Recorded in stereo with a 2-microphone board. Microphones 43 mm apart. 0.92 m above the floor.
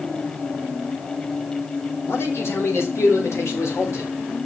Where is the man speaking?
65° left (ahead or behind), 3.5 m; by 4.1 s 80° left, 5 m.